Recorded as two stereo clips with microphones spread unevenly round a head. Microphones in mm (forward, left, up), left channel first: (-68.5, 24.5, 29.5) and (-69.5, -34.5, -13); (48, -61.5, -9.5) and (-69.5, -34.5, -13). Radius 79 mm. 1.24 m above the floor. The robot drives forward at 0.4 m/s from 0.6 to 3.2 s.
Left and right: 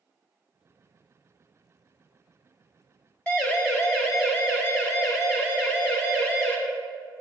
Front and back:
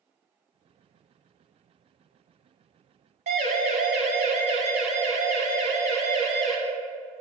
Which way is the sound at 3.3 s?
145° left.